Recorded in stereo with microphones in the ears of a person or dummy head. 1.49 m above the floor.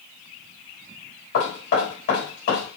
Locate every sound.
1.3 s knocking: 65° left (ahead or behind), 3 m